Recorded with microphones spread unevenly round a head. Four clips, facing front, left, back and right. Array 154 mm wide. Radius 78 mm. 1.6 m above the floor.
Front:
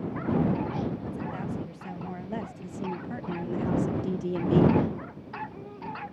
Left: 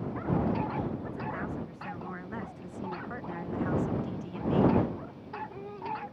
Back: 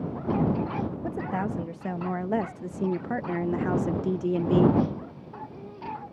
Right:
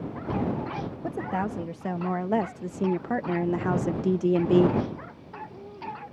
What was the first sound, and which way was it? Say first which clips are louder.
A woman speaking: right 6 dB, back 4 dB; 125° right.